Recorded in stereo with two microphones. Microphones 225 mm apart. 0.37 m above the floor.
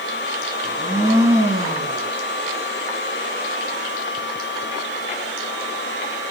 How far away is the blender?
About 2.5 m.